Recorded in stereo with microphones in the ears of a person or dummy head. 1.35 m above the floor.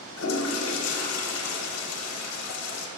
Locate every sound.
0.2 s a toilet flushing: 85° left, 0.7 m